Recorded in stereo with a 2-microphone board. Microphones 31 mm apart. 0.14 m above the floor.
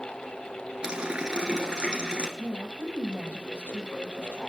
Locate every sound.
0.8 s a running tap: 25° right (ahead or behind), 1.5 m
2.4 s a woman speaking: 70° left (ahead or behind), 4.5 m